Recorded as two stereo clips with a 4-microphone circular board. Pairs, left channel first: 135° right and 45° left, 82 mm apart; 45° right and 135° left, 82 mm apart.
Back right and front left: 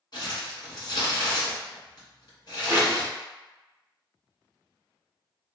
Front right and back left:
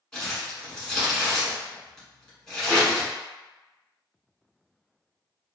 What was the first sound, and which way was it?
Crumpling, 125° right.